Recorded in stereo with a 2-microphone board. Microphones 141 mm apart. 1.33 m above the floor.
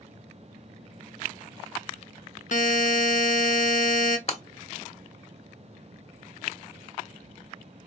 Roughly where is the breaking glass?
Left.